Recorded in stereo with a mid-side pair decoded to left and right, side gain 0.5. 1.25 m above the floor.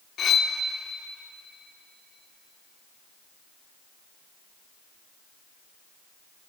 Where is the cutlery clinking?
50° left, 1.8 m.